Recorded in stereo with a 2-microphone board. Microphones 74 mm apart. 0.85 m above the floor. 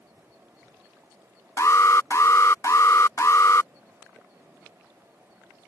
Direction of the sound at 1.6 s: 45° left (ahead or behind).